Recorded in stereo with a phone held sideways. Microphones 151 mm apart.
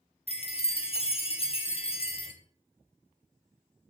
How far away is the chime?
About 0.9 m.